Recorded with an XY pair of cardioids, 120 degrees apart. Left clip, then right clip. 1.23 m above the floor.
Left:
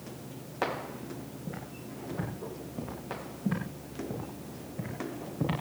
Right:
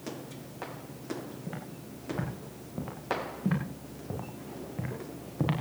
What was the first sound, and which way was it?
Footsteps, 60° right.